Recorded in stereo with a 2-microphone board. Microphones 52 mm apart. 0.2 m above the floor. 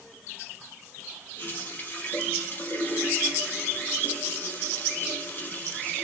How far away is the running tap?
About 3.5 m.